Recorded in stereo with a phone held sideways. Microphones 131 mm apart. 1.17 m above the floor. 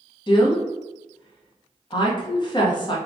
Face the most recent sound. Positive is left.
turn(degrees=35)  # may be behind; listen again after turning